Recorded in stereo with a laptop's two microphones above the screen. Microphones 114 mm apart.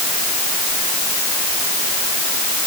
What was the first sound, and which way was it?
Only background noise.